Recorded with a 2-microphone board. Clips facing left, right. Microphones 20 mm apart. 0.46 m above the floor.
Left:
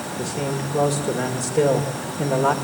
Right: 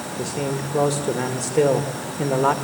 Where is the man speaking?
25° right (ahead or behind), 1.6 m.